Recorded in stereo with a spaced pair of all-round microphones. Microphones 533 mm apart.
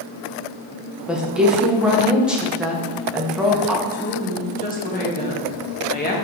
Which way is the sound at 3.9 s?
15° left (ahead or behind).